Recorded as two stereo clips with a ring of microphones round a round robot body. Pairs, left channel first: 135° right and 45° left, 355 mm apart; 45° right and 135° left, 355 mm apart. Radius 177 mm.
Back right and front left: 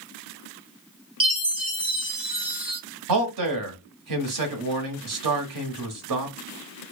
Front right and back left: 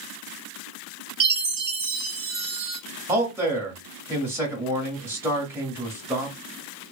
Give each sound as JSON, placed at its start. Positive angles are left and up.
{"t": 1.2, "sound": "a chime", "azimuth_deg": 95, "distance_m": 0.8}
{"t": 3.1, "sound": "a man speaking", "azimuth_deg": 55, "distance_m": 1.2}